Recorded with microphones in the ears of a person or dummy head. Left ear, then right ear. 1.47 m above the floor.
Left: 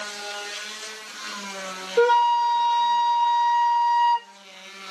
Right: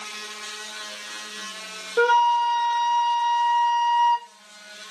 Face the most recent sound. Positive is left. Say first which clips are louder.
# even
turn(degrees=-20)  # may be behind; listen again after turning